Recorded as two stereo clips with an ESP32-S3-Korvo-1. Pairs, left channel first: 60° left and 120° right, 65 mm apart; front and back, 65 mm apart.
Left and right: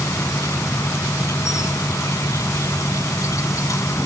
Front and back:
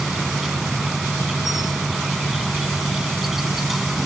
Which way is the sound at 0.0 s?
95° left.